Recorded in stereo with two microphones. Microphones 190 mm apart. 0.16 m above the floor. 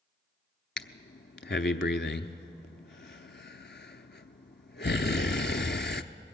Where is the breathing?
70° left (ahead or behind), 0.7 m.